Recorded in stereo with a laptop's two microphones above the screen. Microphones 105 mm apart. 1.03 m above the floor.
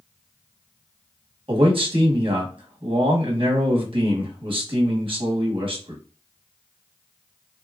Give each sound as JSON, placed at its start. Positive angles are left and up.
{"t": 1.5, "sound": "a man speaking", "side_deg": -55, "distance_m": 1.0}